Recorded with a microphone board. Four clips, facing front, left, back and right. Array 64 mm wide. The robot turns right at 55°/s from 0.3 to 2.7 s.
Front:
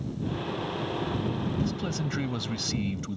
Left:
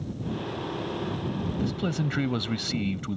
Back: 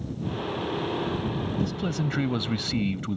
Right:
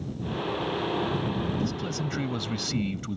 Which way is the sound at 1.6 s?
95° left.